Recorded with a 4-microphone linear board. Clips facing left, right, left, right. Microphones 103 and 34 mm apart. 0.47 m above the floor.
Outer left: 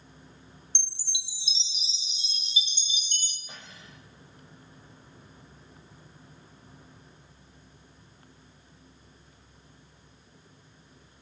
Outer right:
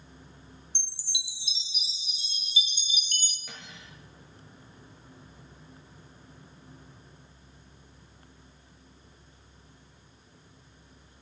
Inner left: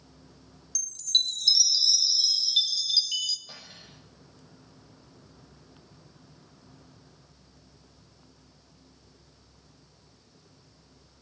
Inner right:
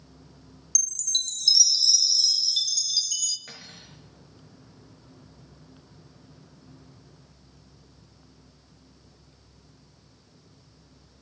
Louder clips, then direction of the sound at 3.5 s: Outer right 1 dB, inner right 2 dB; 80° right.